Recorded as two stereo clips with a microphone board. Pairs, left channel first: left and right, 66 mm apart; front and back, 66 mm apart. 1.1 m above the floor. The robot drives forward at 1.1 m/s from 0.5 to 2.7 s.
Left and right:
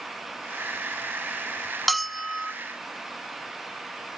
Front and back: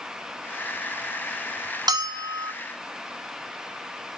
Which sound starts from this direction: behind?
A bell, at 1.9 s.